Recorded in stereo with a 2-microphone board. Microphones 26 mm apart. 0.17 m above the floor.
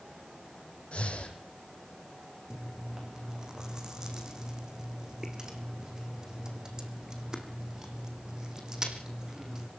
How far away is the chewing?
About 2.5 m.